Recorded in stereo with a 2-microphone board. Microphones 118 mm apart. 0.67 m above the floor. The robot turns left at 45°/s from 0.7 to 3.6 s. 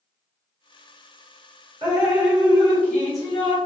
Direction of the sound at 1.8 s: 150° right.